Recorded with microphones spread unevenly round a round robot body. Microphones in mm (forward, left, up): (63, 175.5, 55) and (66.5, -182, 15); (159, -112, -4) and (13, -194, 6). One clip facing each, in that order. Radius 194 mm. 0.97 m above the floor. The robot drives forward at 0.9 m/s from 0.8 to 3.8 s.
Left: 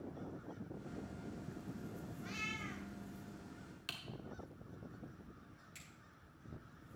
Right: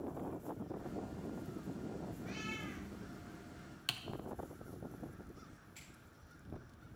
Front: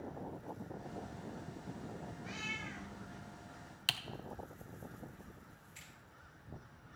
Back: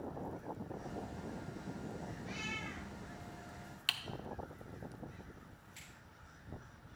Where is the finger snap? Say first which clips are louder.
Right 1 dB, back 1 dB; 100° left, 7.5 m.